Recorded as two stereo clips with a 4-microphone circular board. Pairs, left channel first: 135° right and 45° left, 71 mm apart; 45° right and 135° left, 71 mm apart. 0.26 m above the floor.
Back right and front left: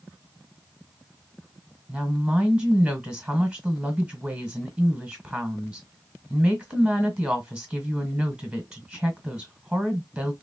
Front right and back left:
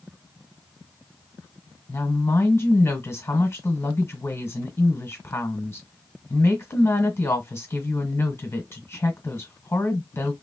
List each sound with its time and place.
1.9 s a woman speaking: 25° right, 1.3 m